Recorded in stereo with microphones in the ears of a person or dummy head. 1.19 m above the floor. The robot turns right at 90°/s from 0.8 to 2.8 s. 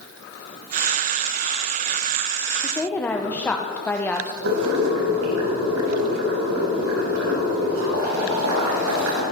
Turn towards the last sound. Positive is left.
turn(degrees=-70)  # may be behind; listen again after turning